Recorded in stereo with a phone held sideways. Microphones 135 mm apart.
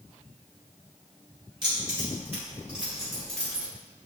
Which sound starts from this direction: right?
Keys jangling, at 1.6 s.